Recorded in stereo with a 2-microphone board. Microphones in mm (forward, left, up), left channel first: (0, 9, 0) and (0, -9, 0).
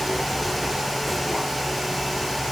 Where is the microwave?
I don't hear a microwave.